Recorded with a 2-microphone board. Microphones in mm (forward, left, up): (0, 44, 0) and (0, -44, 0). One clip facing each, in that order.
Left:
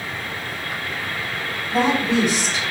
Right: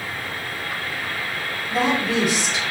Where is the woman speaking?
5° right (ahead or behind), 1.4 m.